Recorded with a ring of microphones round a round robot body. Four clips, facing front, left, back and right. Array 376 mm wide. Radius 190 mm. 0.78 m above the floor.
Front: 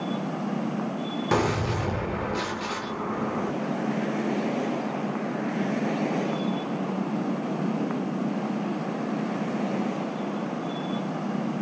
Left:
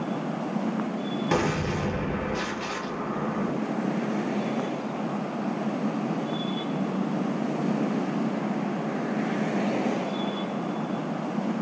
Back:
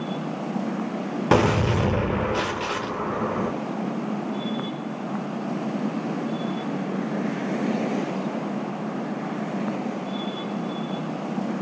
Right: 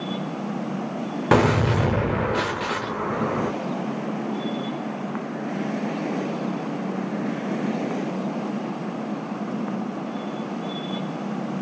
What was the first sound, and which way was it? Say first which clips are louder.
A gunshot: right 9 dB, back 6 dB; 130° right.